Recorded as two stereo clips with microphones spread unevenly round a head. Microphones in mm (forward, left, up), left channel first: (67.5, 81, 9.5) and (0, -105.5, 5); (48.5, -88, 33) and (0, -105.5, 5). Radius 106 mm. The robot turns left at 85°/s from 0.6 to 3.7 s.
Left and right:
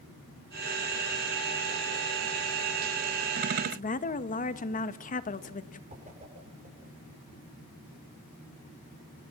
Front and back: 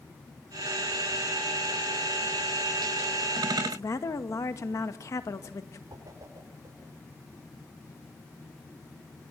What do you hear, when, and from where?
3.6 s a woman speaking: 25° left, 1.8 m; by 5.8 s 20° left, 1.8 m
5.9 s a whoosh: 170° right, 6.5 m